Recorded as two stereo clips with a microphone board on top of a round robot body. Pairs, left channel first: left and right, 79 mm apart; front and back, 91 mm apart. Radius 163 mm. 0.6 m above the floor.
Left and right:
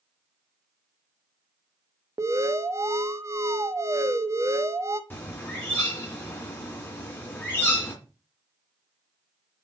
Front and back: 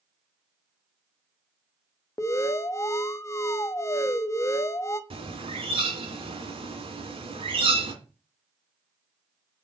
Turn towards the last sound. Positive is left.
turn(degrees=155)